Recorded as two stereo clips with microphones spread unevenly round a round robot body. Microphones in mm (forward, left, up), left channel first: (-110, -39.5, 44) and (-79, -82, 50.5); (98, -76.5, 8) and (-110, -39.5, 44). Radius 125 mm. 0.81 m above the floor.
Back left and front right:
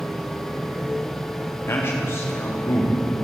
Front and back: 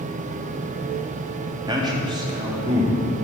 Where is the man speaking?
95° left, 1.6 m.